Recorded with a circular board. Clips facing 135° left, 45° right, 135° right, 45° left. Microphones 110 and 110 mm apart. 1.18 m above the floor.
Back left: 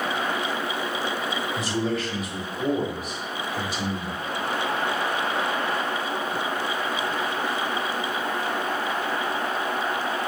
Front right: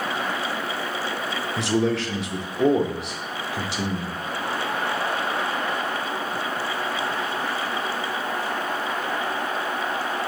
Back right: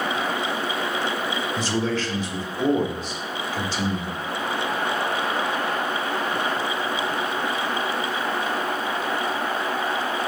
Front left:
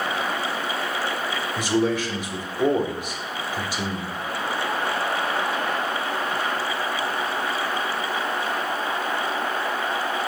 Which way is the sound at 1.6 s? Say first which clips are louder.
Front right 7 dB, front left 5 dB; 30° right.